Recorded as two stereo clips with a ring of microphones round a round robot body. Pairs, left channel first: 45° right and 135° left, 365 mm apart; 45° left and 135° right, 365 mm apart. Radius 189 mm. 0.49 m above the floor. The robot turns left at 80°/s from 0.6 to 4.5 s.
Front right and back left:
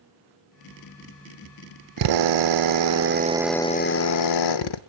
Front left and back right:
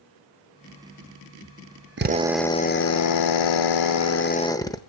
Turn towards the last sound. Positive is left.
turn(degrees=-35)